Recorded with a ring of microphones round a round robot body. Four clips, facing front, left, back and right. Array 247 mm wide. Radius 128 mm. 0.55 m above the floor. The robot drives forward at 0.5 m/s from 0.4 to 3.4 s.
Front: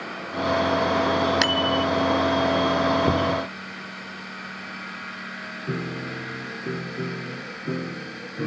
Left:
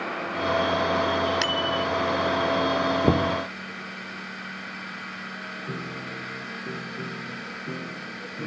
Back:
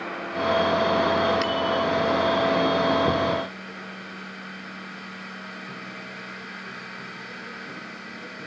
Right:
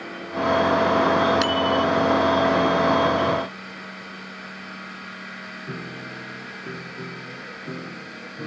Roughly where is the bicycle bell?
Ahead.